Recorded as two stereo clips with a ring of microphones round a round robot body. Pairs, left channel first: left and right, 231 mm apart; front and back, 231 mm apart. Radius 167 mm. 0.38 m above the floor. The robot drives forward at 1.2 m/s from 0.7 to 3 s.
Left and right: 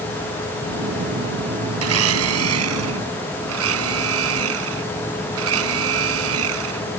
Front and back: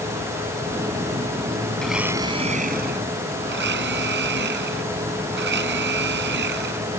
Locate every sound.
1.8 s a blender: 85° right; by 6.9 s 125° right